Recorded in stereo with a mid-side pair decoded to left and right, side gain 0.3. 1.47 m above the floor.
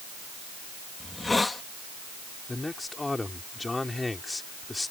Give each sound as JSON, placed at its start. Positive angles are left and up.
{"t": 1.0, "sound": "a hiss", "azimuth_deg": 35}
{"t": 2.5, "sound": "a man speaking", "azimuth_deg": 30}